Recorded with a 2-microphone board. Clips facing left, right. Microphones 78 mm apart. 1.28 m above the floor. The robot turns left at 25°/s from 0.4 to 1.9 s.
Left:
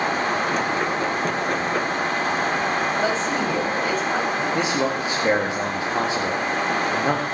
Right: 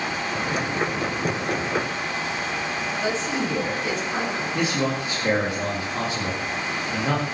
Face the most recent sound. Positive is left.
turn(degrees=25)  # may be behind; listen again after turning